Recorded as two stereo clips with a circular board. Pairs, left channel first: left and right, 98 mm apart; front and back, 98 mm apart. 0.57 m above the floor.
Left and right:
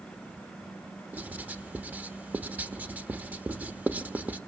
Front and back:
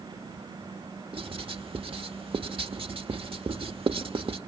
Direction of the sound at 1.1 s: 160° right.